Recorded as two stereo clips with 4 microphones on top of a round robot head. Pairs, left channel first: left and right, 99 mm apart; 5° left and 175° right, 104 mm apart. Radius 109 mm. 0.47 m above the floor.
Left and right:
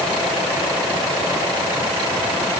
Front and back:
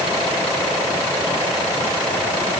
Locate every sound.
Only background noise.